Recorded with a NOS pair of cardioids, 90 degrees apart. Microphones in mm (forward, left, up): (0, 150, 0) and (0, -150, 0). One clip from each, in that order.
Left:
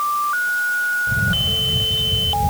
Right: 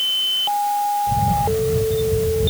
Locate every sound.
1.1 s a camera shutter: 5° right